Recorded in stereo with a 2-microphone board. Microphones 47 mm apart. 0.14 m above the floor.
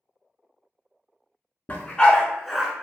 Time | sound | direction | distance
1.7 | a dog barking | 30° left (ahead or behind) | 0.7 m